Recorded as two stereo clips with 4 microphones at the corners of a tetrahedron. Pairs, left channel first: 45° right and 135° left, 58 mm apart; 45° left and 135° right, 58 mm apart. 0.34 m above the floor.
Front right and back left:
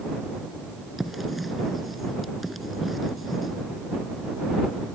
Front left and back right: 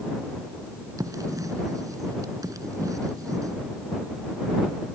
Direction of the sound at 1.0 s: 135° right.